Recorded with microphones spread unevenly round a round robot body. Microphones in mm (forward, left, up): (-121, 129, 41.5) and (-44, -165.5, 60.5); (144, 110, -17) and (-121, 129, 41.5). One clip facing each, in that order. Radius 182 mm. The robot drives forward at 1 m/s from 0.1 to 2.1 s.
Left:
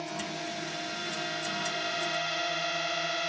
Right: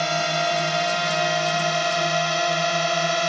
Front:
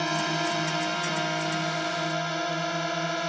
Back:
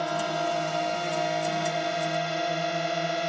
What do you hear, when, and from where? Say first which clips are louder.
0.0 s a drone: right 11 dB, even; 70° right; by 3.3 s 90° right